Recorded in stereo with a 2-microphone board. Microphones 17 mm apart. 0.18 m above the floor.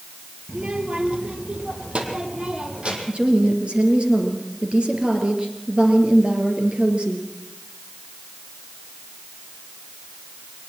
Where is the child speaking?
60° right (ahead or behind), 3 m.